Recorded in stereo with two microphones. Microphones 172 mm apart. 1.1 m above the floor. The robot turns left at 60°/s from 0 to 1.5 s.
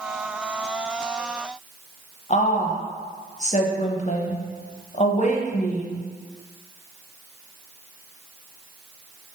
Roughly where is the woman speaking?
Left.